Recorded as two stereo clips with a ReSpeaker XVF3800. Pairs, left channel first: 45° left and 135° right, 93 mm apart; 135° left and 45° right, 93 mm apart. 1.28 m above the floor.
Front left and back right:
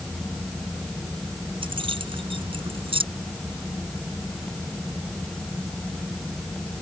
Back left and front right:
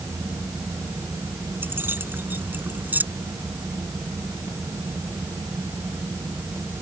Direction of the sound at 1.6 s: 110° right.